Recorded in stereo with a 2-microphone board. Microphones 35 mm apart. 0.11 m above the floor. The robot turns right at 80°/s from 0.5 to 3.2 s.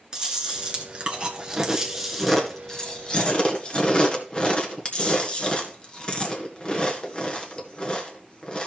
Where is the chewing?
20° right (ahead or behind), 1.7 m; by 8.7 s 30° left (ahead or behind), 1.7 m.